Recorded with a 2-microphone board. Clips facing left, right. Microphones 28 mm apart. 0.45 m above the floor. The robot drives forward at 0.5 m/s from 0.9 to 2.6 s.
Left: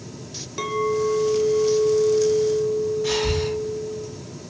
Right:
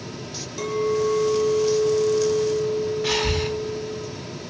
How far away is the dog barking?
No dog barking in this recording.